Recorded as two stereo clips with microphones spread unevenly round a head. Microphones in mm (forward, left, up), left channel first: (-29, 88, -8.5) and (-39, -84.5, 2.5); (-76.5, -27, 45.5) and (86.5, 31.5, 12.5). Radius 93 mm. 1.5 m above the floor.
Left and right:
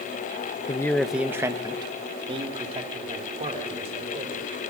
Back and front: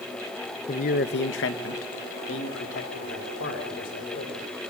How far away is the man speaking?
About 0.9 m.